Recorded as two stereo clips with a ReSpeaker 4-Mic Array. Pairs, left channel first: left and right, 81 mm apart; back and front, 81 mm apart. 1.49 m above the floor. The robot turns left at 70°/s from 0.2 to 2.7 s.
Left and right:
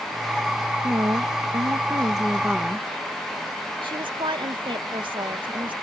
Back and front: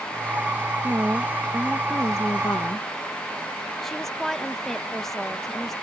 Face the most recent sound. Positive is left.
turn(degrees=-95)